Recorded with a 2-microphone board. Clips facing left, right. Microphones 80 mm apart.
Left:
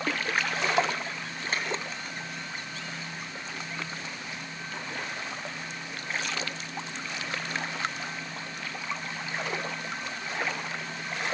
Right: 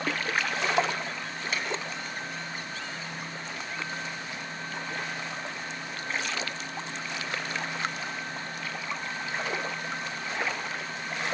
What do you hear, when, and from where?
1.5 s a finger snap: 40° left (ahead or behind), 3 m